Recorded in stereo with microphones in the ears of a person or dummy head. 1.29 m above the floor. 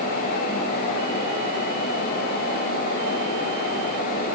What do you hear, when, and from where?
Only background noise.